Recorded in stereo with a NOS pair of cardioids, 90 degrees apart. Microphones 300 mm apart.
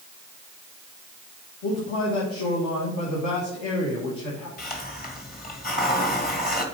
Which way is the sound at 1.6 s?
65° left.